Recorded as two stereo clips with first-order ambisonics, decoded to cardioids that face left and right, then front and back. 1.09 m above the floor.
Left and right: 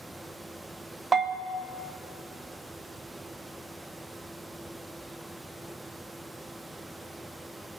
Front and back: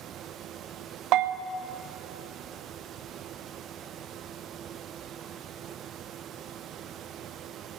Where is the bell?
160° right, 0.5 m.